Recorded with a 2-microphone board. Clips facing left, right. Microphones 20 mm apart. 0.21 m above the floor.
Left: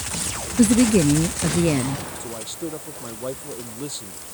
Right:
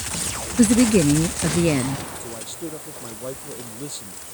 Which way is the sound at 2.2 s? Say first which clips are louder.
Left 2 dB; 10° left (ahead or behind).